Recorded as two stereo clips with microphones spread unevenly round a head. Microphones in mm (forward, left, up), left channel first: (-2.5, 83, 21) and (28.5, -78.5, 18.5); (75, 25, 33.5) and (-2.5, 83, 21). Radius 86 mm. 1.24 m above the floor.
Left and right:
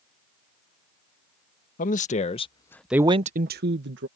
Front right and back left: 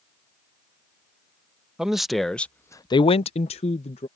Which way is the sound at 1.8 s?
60° left.